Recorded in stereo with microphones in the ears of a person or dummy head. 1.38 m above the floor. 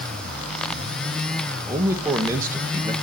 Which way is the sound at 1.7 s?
20° right (ahead or behind).